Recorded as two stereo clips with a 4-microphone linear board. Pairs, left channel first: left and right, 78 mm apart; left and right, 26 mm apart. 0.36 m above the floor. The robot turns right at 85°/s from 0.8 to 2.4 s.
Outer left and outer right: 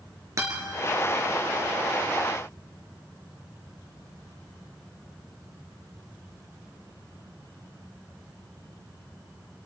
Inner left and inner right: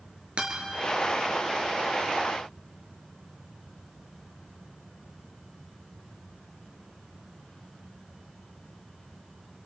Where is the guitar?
45° right (ahead or behind), 4 m.